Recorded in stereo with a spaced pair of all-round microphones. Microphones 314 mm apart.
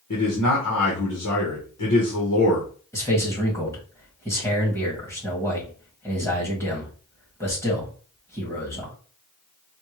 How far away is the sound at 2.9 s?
About 1.9 m.